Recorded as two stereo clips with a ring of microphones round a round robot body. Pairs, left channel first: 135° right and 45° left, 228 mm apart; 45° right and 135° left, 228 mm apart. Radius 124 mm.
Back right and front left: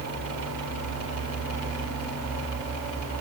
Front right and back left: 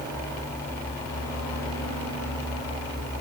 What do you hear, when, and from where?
Only background noise.